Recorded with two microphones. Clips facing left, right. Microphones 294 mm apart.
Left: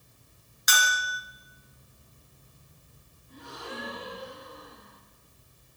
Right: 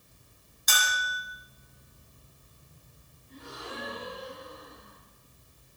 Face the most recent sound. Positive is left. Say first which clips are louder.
# left 1 dB
turn(degrees=60)  # may be behind; listen again after turning